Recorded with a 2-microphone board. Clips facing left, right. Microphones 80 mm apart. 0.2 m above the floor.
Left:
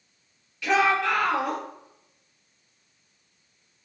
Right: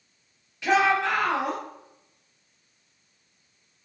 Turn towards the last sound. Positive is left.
turn(degrees=-20)  # may be behind; listen again after turning